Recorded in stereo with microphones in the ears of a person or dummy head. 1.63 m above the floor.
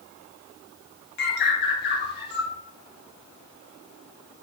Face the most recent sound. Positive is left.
turn(degrees=60)  # may be behind; listen again after turning